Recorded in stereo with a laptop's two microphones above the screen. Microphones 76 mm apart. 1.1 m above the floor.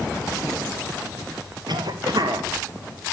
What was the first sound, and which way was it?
A cough, 65° right (ahead or behind).